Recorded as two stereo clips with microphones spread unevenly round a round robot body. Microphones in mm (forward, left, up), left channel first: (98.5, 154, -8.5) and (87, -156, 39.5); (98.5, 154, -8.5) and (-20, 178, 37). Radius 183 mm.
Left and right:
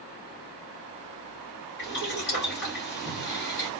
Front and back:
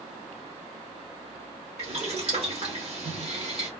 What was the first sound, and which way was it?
Boiling, 130° left.